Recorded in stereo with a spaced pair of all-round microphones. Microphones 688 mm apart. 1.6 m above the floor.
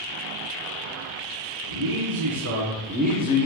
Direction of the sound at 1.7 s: 30° right (ahead or behind).